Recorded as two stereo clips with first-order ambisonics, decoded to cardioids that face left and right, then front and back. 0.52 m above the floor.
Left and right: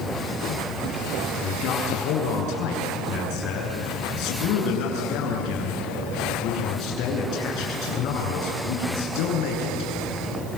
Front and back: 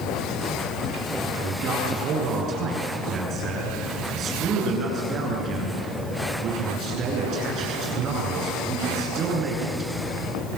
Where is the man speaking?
125° left, 8 m.